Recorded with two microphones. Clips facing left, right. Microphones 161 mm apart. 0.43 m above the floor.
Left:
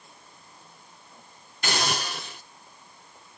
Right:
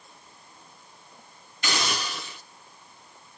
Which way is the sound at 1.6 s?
55° left (ahead or behind).